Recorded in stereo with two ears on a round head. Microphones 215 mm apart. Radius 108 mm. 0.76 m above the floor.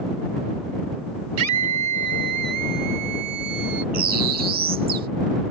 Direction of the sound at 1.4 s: 75° right (ahead or behind).